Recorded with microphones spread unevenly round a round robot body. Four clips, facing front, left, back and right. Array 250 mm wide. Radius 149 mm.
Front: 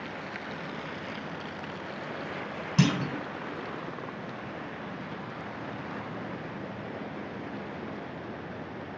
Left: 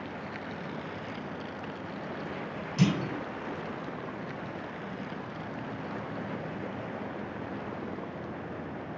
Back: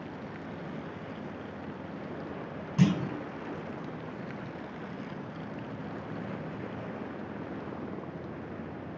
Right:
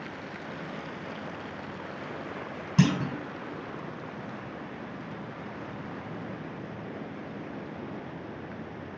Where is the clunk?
60° right, 2 m.